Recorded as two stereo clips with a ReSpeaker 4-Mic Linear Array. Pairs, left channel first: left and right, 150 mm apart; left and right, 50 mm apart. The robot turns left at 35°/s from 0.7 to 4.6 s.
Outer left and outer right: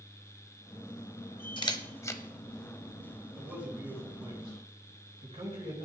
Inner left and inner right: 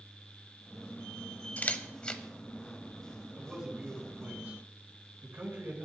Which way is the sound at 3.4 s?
Straight ahead.